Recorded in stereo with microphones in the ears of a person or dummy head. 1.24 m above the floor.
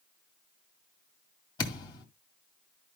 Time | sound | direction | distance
1.6 | a thud | 30° left (ahead or behind) | 2 m